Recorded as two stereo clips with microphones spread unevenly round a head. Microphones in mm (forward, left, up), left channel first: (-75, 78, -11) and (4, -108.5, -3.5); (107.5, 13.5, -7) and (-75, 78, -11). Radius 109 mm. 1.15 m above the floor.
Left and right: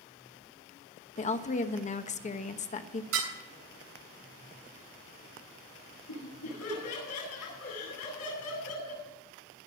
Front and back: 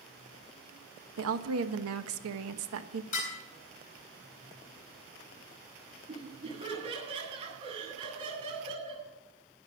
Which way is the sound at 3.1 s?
75° right.